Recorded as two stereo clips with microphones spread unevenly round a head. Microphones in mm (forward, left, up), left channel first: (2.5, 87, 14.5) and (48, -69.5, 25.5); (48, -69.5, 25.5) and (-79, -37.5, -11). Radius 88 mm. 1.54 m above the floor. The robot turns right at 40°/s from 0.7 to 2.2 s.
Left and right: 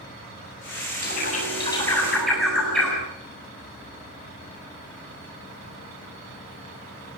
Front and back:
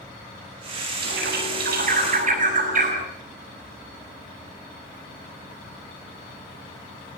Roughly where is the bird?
Behind left.